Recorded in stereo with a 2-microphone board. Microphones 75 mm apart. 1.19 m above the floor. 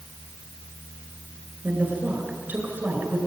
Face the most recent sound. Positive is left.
turn(degrees=-20)  # may be behind; listen again after turning